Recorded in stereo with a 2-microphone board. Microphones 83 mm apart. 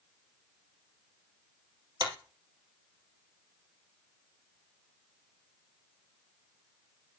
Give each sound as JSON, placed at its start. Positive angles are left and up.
{"t": 2.0, "sound": "a clap", "side_deg": -55, "distance_m": 2.5}